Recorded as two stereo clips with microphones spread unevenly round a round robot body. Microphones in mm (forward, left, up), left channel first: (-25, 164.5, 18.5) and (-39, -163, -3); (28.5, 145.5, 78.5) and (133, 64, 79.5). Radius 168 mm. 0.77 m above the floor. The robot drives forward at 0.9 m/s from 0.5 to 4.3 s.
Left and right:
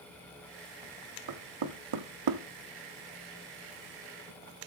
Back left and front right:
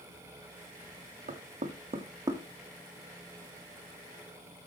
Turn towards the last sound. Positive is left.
turn(degrees=-155)